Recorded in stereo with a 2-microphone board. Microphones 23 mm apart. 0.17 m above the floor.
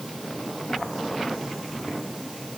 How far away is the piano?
I don't hear a piano.